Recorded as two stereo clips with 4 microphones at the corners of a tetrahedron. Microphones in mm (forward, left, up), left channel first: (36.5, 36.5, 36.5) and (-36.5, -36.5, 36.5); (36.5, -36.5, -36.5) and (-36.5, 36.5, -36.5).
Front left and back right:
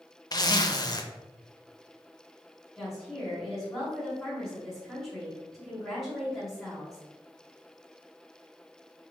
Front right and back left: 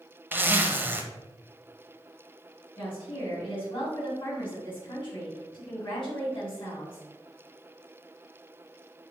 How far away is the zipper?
About 0.6 m.